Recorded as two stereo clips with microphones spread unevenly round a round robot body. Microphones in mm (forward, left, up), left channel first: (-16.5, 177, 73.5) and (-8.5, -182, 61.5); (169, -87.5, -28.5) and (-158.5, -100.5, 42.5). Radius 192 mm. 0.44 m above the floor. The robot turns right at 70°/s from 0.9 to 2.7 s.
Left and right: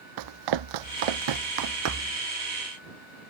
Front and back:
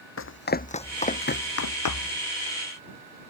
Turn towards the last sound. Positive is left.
turn(degrees=15)